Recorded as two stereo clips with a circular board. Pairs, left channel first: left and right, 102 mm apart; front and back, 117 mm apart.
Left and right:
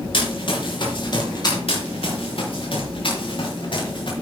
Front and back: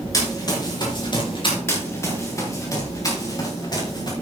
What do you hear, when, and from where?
0.1 s running footsteps: 60° left, 5 m; by 1.6 s 40° left, 4 m
1.7 s running footsteps: 70° left, 4 m; by 4.1 s 50° left, 4.5 m